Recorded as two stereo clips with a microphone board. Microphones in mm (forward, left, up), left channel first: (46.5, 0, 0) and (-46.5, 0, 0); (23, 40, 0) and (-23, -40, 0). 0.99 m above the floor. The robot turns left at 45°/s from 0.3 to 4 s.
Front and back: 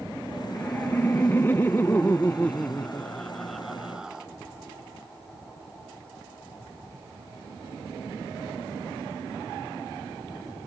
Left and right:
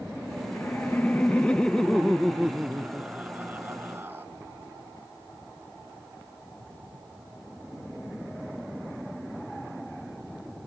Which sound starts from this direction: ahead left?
Laughter, at 0.6 s.